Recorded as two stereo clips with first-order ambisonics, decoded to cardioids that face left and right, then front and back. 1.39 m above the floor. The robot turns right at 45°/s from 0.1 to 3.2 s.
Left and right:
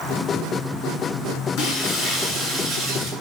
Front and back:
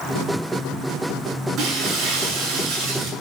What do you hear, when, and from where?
1.6 s breaking glass: 125° left, 9.5 m; by 3.1 s 170° right, 9.5 m